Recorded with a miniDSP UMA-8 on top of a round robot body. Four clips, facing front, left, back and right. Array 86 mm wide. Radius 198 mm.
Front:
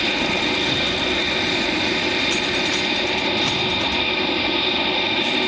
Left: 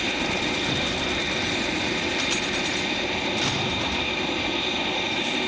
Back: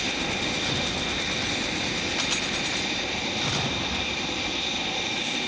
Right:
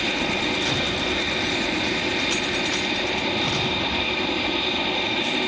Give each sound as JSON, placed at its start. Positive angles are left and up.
{"t": 0.0, "sound": "an aircraft", "azimuth_deg": -10}